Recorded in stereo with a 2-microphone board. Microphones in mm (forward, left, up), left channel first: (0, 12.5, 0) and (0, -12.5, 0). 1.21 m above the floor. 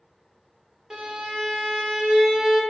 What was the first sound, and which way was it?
A violin, 30° right (ahead or behind).